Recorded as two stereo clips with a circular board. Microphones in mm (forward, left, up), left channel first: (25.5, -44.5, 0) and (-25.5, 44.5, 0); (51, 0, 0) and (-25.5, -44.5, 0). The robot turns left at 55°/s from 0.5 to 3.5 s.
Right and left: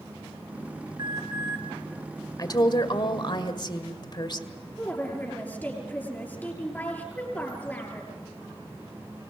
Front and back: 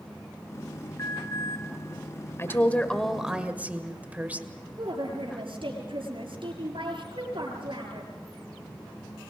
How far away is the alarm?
About 4.5 m.